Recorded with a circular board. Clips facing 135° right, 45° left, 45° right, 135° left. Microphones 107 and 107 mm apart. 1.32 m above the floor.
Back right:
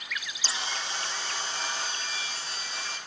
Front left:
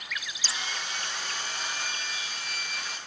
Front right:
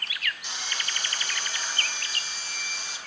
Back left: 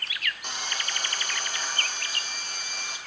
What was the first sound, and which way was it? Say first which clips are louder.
Sawing: back right 2 dB, back left 2 dB; 170° left.